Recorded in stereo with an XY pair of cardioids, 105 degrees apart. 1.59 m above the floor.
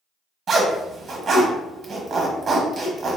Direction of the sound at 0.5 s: 45° right.